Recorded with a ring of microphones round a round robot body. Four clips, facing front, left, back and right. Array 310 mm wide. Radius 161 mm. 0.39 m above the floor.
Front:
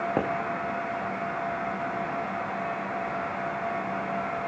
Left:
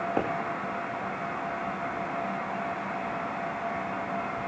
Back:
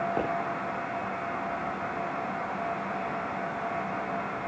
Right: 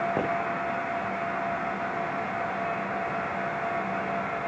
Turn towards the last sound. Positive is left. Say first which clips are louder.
# even, front 5 dB
turn(degrees=-15)